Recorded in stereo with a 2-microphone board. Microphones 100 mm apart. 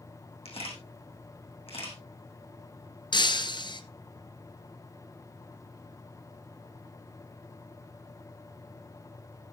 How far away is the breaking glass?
About 1.1 m.